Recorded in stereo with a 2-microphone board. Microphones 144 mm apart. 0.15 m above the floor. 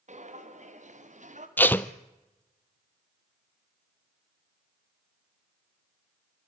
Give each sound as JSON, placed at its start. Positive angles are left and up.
{"t": 0.1, "sound": "footsteps", "side_deg": -55, "distance_m": 3.5}
{"t": 1.6, "sound": "tape being pulled", "side_deg": 10, "distance_m": 0.8}